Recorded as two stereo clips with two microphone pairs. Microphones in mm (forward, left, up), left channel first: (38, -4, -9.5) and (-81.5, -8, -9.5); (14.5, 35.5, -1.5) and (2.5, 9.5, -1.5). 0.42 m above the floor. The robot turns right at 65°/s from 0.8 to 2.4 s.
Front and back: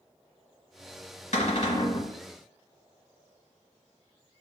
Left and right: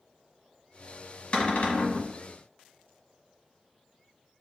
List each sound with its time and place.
1.3 s a cupboard door: 5° left, 1.3 m; by 2.1 s 55° left, 1.3 m